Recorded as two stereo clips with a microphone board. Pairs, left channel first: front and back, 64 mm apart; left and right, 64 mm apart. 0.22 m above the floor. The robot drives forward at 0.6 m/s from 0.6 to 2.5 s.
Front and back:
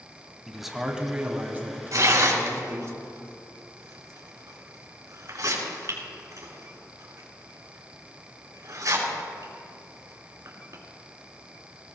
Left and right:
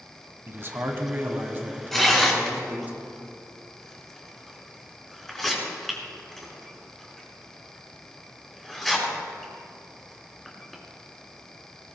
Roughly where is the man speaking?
Right.